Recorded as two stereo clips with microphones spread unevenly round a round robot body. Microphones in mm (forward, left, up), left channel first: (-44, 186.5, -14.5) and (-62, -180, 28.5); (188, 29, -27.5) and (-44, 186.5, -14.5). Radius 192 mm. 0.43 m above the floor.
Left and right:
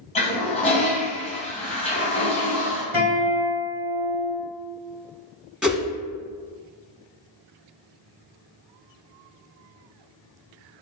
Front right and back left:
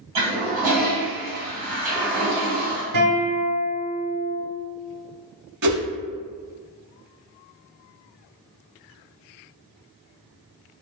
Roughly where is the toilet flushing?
Behind.